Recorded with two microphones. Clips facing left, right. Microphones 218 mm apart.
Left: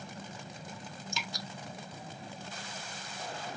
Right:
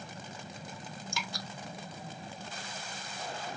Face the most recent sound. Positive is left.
turn(degrees=25)  # may be behind; listen again after turning